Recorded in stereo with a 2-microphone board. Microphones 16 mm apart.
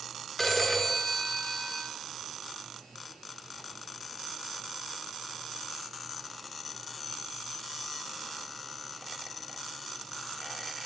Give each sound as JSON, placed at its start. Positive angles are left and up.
{"t": 0.4, "sound": "a phone ringing", "side_deg": 5, "distance_m": 1.1}